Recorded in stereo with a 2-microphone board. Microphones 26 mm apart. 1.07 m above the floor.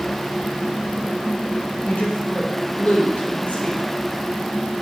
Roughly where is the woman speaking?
Left.